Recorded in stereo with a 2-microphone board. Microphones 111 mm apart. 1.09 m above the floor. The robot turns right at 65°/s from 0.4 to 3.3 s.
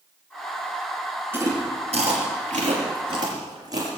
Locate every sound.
1.3 s chewing: 20° right (ahead or behind), 4.5 m; by 4.0 s 30° right (ahead or behind), 4.5 m